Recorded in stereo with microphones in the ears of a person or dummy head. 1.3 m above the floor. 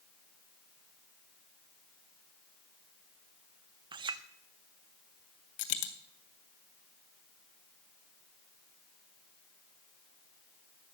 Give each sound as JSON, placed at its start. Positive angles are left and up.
{"t": 3.9, "sound": "a clink", "side_deg": -25, "distance_m": 0.8}
{"t": 5.6, "sound": "a dropped coin", "side_deg": 40, "distance_m": 1.3}